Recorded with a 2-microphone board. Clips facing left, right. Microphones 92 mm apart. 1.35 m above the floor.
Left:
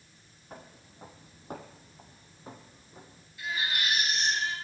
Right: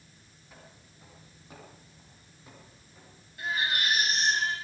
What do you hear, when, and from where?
0.5 s footsteps: 50° left (ahead or behind), 3 m; by 3.3 s 30° left (ahead or behind), 3.5 m
3.4 s a baby crying: 55° right (ahead or behind), 7 m